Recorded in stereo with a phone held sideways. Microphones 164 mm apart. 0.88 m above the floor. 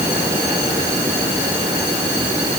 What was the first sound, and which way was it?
Only background noise.